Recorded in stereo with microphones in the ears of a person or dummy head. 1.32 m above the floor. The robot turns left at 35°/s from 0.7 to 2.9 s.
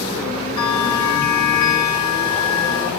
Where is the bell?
145° left, 0.8 m; by 2.9 s 70° left, 0.8 m.